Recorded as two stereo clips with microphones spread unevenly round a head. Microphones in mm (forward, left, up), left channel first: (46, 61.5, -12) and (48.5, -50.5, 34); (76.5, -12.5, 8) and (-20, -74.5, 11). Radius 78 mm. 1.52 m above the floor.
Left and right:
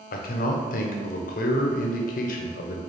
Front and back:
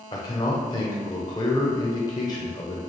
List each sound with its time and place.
0.1 s a man speaking: 95° left, 0.6 m